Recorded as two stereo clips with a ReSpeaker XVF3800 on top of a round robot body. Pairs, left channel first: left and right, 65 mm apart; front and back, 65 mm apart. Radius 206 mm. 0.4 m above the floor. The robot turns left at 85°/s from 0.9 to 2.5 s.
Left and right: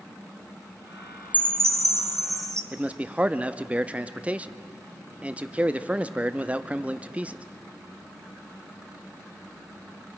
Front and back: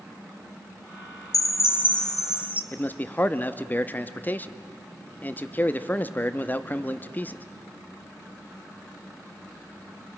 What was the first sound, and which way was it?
A chime, 20° right.